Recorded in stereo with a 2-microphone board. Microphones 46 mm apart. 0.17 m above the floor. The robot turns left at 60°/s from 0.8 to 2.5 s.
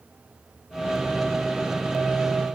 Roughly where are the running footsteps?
I don't hear running footsteps.